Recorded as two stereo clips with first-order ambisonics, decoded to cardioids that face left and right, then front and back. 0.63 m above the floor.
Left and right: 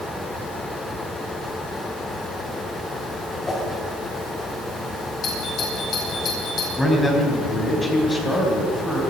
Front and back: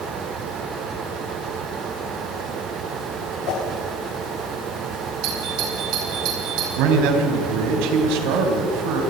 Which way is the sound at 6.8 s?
170° left.